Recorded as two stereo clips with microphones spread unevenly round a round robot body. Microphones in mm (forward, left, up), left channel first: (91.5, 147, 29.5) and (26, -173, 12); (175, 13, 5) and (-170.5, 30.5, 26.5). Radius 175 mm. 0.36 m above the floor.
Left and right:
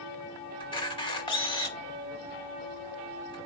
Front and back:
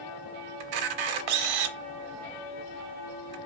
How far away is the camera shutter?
About 0.7 m.